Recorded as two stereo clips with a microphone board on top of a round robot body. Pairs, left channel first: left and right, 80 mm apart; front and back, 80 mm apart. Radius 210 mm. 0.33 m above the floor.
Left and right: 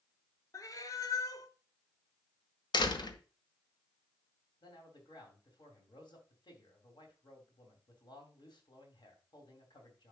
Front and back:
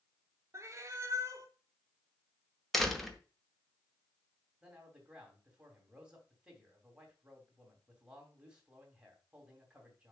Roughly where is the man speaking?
Left.